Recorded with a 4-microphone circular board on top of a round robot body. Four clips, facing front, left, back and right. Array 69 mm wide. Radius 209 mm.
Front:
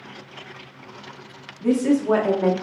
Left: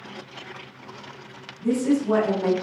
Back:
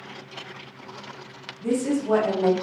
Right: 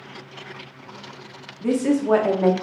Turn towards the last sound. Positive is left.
turn(degrees=-60)